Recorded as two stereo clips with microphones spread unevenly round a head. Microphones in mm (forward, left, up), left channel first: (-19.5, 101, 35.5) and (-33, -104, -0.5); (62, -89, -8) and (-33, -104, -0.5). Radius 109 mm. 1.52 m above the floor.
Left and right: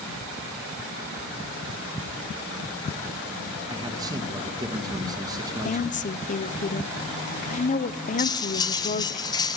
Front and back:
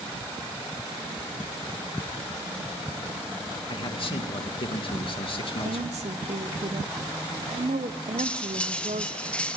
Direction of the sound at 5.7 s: 140° left.